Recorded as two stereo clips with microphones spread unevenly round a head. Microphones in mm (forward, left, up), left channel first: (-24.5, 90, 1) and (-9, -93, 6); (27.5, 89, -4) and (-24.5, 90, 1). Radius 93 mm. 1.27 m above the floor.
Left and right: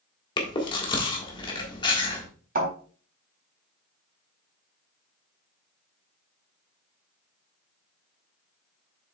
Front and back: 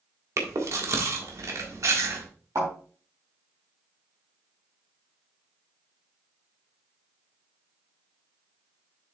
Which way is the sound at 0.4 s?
160° left.